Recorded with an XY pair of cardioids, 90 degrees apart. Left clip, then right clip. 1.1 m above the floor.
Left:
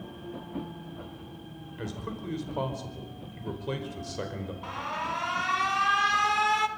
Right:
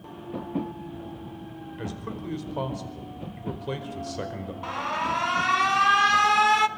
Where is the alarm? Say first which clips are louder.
Right 5 dB; 40° right, 1.2 m.